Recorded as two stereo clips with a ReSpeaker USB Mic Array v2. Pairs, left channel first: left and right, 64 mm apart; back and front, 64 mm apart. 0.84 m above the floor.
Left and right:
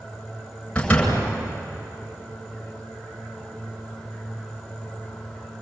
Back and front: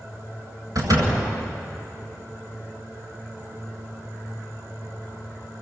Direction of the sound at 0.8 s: 20° left.